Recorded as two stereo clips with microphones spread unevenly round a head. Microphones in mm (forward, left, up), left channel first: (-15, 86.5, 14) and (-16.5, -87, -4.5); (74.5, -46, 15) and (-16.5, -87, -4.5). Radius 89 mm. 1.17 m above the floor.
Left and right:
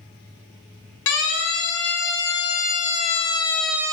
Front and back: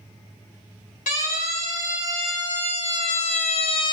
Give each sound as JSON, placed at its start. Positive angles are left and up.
{"t": 1.1, "sound": "a siren", "azimuth_deg": 60, "distance_m": 4.0}